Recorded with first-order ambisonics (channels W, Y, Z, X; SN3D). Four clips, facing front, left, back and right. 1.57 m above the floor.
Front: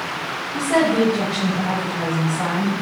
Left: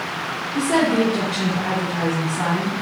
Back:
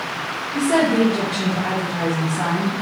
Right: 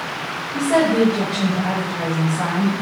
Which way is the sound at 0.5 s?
140° left.